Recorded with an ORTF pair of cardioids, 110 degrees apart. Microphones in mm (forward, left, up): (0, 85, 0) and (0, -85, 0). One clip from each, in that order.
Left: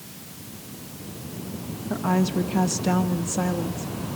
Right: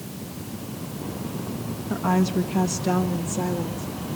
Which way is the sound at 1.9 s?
5° right.